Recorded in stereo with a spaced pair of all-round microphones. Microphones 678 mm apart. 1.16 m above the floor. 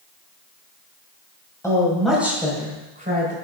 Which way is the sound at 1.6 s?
5° left (ahead or behind).